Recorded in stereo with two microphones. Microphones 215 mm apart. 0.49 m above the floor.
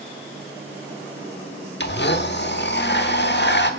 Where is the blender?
55° left (ahead or behind), 1.1 m.